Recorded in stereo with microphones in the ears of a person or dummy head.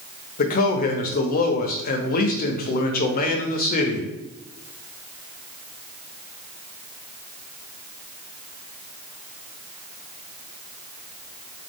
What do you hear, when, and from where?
0.4 s a man speaking: 50° left (ahead or behind), 0.6 m